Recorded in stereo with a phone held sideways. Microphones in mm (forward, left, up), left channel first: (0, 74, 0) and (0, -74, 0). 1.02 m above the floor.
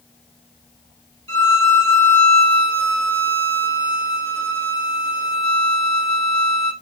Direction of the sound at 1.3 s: 25° left (ahead or behind).